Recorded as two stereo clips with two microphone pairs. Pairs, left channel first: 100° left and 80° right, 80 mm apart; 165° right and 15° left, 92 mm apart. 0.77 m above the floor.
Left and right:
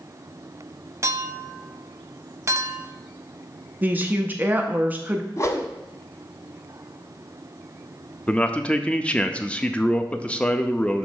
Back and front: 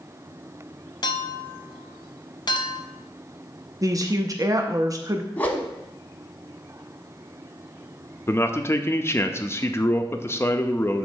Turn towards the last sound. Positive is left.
turn(degrees=160)